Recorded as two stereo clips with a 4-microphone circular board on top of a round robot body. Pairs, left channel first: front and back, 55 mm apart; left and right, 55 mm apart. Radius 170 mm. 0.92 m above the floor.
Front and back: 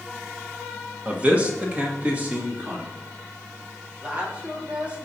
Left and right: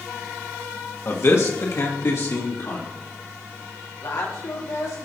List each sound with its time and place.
1.1 s a man speaking: 120° left, 1.5 m
4.0 s a woman speaking: 115° left, 2 m